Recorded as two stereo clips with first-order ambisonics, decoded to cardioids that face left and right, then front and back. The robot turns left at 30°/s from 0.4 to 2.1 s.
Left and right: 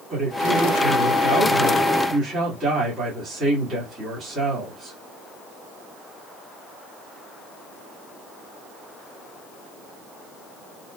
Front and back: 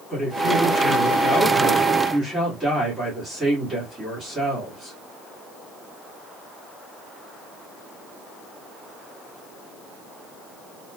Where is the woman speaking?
50° right, 1.3 m; by 5.0 s 105° right, 1.3 m.